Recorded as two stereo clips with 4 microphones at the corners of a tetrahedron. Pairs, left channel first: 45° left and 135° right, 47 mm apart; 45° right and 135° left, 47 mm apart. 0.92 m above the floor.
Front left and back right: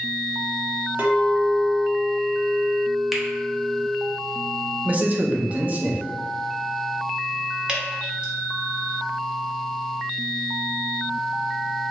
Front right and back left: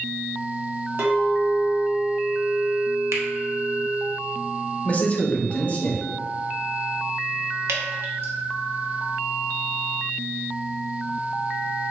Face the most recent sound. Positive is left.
turn(degrees=155)